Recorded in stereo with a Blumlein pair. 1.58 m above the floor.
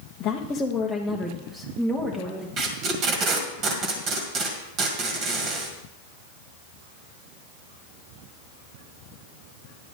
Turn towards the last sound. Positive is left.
turn(degrees=-30)